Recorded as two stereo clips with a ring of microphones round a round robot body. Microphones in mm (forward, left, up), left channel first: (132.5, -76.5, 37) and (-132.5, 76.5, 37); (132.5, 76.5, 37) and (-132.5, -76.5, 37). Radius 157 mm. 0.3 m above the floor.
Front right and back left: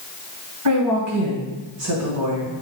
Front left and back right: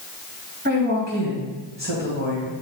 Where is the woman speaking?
155° left, 2.5 m.